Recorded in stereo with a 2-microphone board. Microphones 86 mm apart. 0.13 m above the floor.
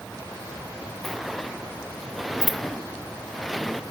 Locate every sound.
1.0 s a sliding door: centre (ahead or behind)